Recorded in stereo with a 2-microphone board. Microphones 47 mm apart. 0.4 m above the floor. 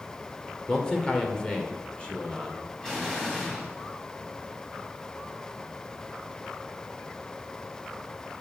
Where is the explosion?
15° left (ahead or behind), 2.5 m.